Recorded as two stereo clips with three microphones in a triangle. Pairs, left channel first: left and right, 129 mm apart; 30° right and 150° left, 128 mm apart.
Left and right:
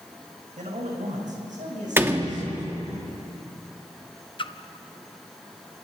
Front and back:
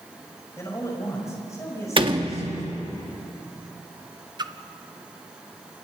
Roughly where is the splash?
Left.